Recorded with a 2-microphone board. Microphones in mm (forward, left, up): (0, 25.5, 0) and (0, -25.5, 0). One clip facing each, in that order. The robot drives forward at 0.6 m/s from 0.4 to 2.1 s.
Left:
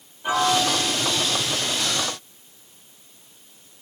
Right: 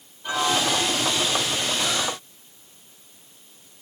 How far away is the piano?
About 7.5 m.